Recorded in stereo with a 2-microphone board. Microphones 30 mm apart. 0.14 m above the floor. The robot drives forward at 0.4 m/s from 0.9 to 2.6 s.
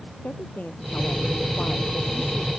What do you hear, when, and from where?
0.2 s a woman speaking: 70° left (ahead or behind); by 2.5 s 65° left (ahead or behind)